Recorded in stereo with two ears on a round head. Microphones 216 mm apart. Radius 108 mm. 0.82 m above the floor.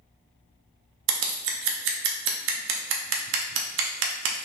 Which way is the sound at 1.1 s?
50° right (ahead or behind).